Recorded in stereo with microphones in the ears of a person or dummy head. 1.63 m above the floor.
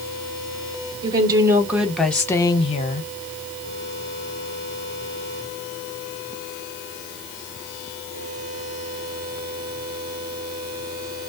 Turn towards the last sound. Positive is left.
turn(degrees=55)  # may be behind; listen again after turning